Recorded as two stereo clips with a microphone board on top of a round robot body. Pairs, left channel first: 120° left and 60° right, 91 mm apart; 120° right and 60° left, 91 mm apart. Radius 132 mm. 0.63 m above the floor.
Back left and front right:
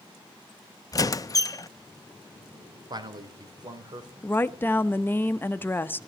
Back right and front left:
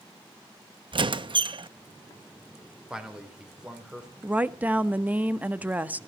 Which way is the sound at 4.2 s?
105° left.